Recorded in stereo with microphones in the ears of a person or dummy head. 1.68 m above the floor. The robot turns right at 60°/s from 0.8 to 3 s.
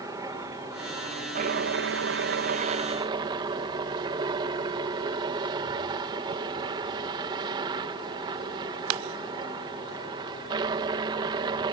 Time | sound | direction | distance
0.0 | a helicopter | 160° right | ?